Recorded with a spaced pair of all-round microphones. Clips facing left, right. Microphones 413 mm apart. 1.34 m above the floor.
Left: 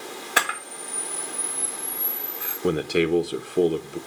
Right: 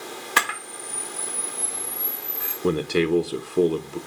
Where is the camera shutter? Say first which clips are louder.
Left 2 dB; 10° right (ahead or behind), 1.5 m.